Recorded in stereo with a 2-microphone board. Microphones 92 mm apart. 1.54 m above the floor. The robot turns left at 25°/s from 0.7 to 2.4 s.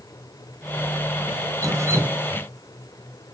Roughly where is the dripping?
Right.